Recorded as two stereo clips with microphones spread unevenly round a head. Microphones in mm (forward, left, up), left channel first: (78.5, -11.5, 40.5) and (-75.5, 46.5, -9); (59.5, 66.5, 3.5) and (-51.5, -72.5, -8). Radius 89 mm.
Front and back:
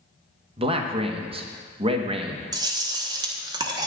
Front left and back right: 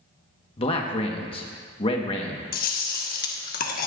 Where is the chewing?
95° left, 1.3 m.